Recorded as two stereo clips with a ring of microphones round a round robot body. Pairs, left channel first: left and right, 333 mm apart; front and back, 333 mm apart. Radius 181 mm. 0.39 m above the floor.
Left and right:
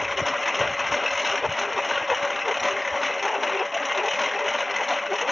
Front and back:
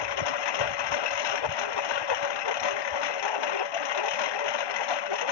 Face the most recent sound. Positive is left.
turn(degrees=0)